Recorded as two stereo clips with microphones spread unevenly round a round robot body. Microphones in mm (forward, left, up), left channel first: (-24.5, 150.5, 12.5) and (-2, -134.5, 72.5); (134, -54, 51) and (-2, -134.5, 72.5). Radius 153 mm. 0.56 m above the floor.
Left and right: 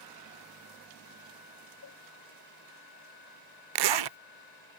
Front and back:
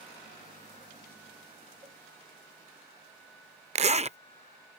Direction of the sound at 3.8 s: 95° right.